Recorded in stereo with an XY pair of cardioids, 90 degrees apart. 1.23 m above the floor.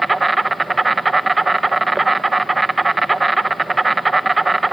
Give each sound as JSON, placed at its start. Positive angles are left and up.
{"t": 0.0, "sound": "an insect", "azimuth_deg": -20, "distance_m": 0.7}